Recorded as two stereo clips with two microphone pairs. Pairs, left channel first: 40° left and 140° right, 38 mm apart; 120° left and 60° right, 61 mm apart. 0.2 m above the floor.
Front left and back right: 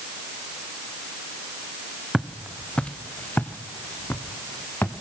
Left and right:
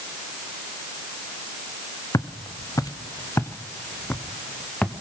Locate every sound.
2.1 s footsteps: 130° left, 1.2 m; by 4.9 s 45° left, 2 m